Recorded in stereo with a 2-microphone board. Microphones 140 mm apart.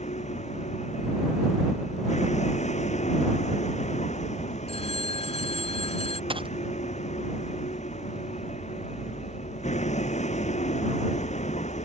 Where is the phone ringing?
45° left (ahead or behind).